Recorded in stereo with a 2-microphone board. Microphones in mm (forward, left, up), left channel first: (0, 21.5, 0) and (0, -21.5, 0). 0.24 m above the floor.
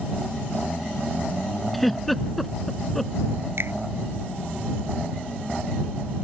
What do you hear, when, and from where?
1.7 s a giggle: centre (ahead or behind)
3.6 s a finger snap: 70° right (ahead or behind)